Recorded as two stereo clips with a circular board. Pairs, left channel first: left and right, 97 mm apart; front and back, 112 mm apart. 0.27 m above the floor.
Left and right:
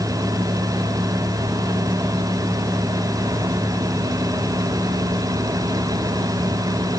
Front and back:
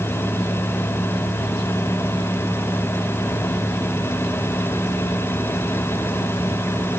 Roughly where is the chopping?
I don't hear chopping.